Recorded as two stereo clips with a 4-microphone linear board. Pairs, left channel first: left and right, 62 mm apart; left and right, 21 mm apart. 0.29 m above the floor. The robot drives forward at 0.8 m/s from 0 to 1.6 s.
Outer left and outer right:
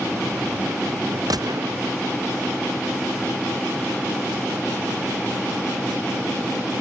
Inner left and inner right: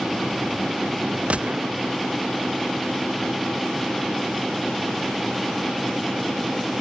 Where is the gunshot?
85° right.